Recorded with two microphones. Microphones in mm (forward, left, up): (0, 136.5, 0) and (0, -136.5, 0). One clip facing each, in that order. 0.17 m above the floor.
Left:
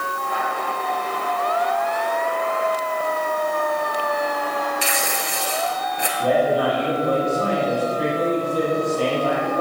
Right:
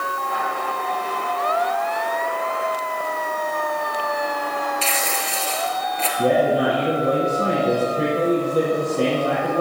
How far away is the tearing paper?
About 1.4 m.